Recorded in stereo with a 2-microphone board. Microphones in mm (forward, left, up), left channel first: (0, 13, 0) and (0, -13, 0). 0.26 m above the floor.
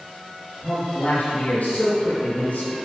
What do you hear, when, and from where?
0.6 s a man speaking: 70° left (ahead or behind), 4.5 m